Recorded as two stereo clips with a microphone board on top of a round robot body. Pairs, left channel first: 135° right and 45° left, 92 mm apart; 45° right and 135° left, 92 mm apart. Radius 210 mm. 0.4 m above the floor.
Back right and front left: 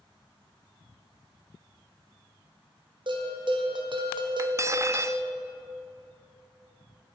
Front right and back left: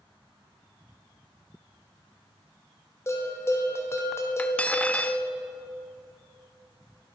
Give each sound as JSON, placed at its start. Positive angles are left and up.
{"t": 3.1, "sound": "a bell", "azimuth_deg": 15, "distance_m": 1.6}
{"t": 4.4, "sound": "cutlery clinking", "azimuth_deg": 20, "distance_m": 0.6}